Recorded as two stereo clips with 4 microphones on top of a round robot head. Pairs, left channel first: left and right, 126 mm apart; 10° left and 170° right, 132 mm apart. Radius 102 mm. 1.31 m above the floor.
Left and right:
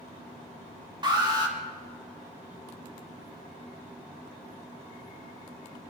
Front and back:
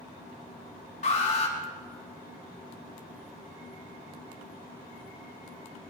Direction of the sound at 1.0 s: 35° right.